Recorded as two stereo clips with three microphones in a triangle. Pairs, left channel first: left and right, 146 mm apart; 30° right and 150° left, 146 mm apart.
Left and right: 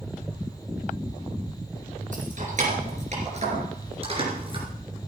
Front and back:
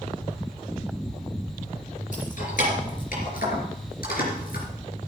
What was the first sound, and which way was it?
Keys jangling, 60° right.